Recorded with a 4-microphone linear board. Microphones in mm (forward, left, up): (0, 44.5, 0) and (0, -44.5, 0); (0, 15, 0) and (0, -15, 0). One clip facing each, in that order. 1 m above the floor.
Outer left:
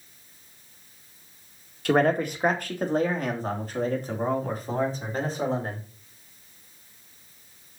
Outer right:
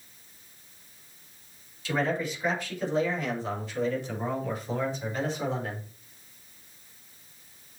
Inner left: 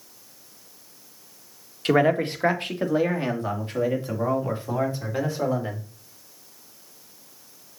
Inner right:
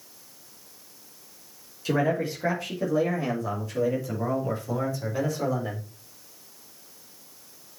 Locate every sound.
1.9 s a man speaking: 55° left (ahead or behind), 1.7 m; by 5.8 s 35° left (ahead or behind), 4.5 m